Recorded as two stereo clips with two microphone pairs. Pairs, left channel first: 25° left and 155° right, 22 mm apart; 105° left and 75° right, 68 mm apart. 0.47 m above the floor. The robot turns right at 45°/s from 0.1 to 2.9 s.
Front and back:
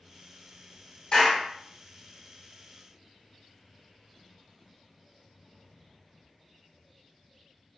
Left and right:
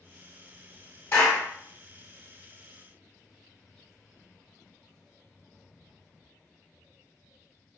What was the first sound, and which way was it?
A clap, 55° left.